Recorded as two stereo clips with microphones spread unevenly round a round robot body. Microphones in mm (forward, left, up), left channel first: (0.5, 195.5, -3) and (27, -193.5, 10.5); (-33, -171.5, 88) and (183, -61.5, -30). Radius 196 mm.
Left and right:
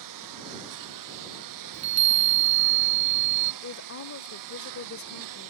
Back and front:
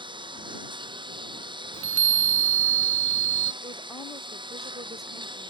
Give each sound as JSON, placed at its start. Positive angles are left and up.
{"t": 0.0, "sound": "a lawn mower", "azimuth_deg": -45}
{"t": 1.7, "sound": "a chime", "azimuth_deg": -25}
{"t": 3.6, "sound": "a woman speaking", "azimuth_deg": 70}